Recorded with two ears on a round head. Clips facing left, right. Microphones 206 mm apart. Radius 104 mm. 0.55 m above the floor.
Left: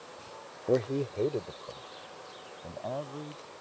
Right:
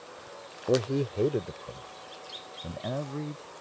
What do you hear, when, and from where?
0.7 s a man speaking: 5° right (ahead or behind); by 3.4 s 30° right (ahead or behind)